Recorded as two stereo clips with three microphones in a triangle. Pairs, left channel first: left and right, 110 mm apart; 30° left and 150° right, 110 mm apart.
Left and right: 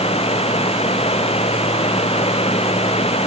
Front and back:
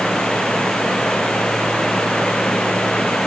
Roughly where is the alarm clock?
No alarm clock in this recording.